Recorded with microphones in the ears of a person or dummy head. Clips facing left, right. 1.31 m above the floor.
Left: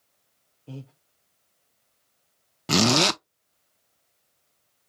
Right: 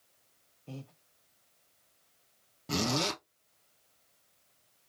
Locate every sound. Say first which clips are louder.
0.7 s breathing: left 4 dB; 10° left (ahead or behind), 1.0 m
2.7 s a zipper: left 10 dB; 80° left, 0.5 m